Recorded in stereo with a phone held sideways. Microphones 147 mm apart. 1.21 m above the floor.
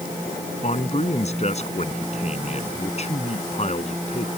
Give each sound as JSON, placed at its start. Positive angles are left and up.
{"t": 0.6, "sound": "a man speaking", "side_deg": 45}